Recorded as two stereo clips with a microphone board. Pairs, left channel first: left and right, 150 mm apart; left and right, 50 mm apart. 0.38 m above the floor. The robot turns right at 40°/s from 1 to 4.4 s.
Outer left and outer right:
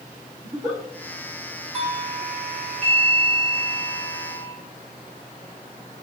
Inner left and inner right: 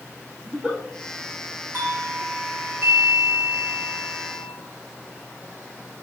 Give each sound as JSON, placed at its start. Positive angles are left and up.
{"t": 0.4, "sound": "a giggle", "side_deg": -30, "distance_m": 4.5}
{"t": 1.7, "sound": "a doorbell", "azimuth_deg": -115, "distance_m": 3.0}